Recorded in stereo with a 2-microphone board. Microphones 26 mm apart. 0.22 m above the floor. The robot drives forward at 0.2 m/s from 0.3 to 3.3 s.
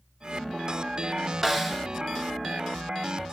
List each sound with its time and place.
1.4 s a snare drum: 10° right (ahead or behind), 1.0 m